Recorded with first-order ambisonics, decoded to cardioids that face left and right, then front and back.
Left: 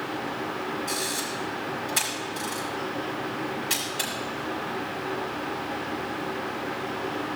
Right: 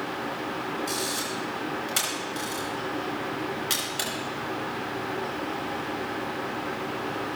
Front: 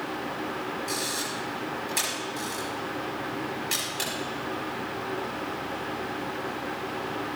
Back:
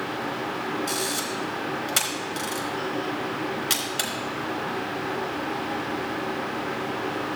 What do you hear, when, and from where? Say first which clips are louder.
0.9 s a camera shutter: even, back 3 dB; 160° right, 4 m